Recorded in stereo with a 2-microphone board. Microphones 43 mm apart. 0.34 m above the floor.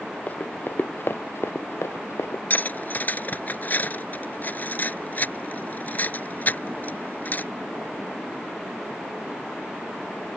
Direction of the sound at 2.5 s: 40° left (ahead or behind).